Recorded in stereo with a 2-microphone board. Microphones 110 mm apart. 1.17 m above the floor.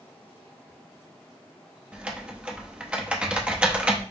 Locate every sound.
1.9 s typing on a keyboard: 10° right (ahead or behind), 0.6 m